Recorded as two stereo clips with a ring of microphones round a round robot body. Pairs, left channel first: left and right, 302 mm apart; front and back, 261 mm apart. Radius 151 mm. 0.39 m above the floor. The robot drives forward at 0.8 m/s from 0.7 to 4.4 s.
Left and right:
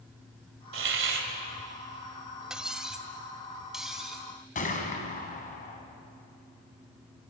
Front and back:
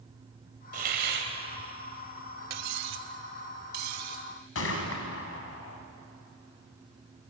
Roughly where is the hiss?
Behind right.